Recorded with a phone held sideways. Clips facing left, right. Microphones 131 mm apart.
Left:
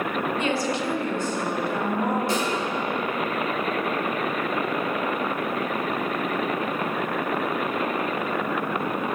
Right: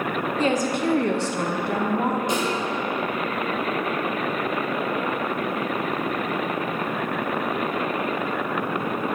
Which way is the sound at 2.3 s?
20° right (ahead or behind).